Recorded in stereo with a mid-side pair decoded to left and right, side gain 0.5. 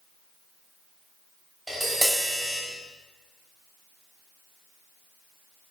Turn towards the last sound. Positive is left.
turn(degrees=-10)